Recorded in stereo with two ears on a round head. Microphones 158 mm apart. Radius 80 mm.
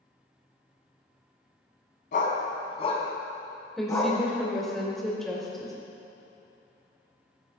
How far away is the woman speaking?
About 2.5 m.